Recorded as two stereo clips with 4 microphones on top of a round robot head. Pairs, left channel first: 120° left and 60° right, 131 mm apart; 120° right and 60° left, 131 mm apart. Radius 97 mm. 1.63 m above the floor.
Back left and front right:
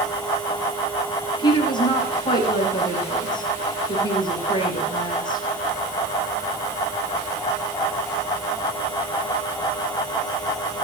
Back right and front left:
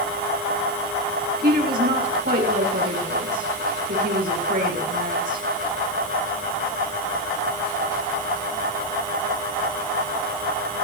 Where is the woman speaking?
65° left, 7 m.